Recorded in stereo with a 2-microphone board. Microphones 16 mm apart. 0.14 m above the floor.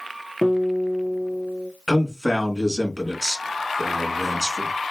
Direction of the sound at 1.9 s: 20° right (ahead or behind).